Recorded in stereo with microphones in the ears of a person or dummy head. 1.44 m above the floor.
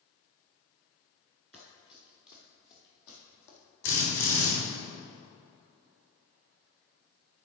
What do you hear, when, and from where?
1.5 s running footsteps: 10° left (ahead or behind), 1.6 m; by 3.6 s 65° left (ahead or behind), 3.5 m
3.8 s a drill: 75° left (ahead or behind), 3 m